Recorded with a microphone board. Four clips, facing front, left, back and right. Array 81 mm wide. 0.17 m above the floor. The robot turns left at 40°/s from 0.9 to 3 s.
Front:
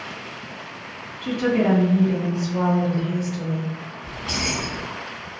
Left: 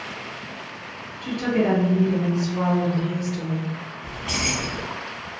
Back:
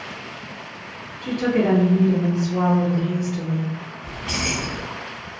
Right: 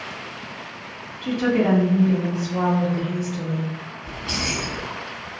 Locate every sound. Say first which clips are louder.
1.2 s a woman speaking: right 2 dB, even; 40° right, 1.1 m; by 3.8 s 110° right, 1.1 m
4.0 s keys jangling: even, even; 105° left, 0.9 m